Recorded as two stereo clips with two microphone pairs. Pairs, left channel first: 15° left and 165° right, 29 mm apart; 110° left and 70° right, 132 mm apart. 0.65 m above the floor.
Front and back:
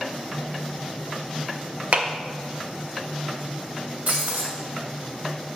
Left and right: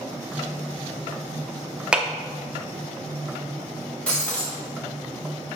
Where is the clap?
155° right, 0.7 m.